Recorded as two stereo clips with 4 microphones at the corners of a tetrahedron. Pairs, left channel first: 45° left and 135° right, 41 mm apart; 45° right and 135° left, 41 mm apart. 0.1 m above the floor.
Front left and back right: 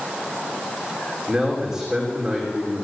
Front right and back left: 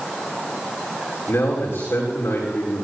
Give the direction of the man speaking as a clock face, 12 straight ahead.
2 o'clock.